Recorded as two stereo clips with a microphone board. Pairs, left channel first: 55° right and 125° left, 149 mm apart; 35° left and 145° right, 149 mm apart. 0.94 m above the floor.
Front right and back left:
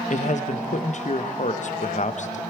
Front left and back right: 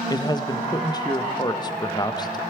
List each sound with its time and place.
0.1 s a man speaking: 25° right, 0.7 m